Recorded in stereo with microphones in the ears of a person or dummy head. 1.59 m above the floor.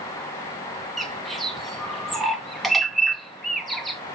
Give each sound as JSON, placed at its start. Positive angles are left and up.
{"t": 1.0, "sound": "a bird", "side_deg": 0, "distance_m": 0.7}